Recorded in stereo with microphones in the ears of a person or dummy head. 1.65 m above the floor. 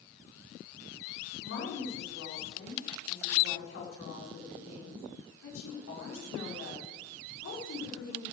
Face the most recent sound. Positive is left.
turn(degrees=90)